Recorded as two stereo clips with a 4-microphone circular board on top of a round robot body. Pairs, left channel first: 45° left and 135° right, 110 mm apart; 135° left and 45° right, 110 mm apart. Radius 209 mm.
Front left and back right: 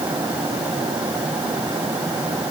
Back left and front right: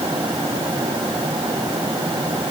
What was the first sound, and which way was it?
Only background noise.